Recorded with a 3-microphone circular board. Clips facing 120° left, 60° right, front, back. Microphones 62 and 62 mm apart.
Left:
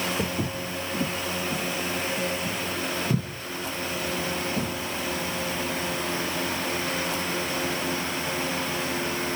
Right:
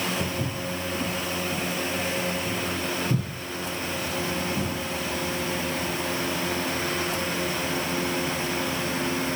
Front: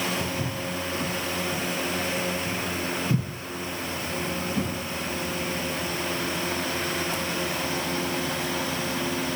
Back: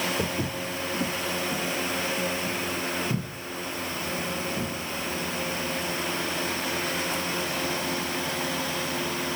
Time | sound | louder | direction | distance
0.2 | footsteps | even, back 1 dB | 150° left | 1.8 m